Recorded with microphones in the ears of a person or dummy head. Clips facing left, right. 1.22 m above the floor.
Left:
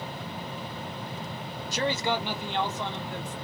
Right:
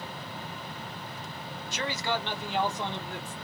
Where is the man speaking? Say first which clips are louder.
Left 4 dB; 45° left (ahead or behind), 0.6 m; by 3.4 s 25° right (ahead or behind), 1.0 m.